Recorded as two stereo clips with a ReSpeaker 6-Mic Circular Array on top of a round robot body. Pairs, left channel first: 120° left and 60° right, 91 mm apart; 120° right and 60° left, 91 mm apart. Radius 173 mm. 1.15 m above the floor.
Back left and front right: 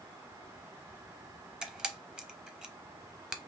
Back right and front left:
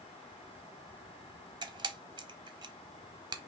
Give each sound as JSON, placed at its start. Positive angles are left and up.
{"t": 1.6, "sound": "a camera shutter", "azimuth_deg": 20, "distance_m": 0.8}